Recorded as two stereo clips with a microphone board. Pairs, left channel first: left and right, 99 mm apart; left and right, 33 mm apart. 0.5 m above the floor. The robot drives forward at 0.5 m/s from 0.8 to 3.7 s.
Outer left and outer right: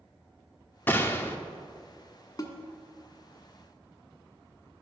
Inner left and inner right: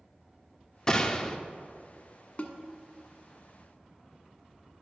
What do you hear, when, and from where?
0.9 s a gunshot: 20° left (ahead or behind), 0.8 m
2.4 s a snare drum: 40° left (ahead or behind), 1.1 m